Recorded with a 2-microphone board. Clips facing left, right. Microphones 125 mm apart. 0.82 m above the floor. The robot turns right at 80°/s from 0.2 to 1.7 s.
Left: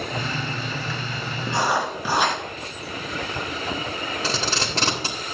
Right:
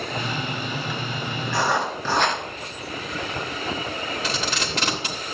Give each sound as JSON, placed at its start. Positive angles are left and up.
{"t": 1.5, "sound": "writing", "side_deg": 30, "distance_m": 3.0}
{"t": 4.2, "sound": "tape being pulled", "side_deg": 35, "distance_m": 2.5}